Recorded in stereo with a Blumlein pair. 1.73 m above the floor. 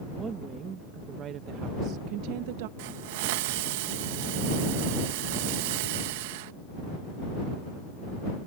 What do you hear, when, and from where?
0.1 s a woman speaking: 20° right; by 2.7 s 50° right
2.8 s a hiss: 50° right